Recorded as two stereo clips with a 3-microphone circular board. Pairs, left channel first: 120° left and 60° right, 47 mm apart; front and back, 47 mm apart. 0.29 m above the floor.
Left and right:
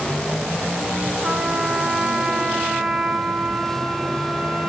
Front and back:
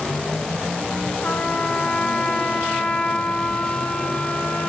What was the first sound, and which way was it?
A trumpet, 10° left.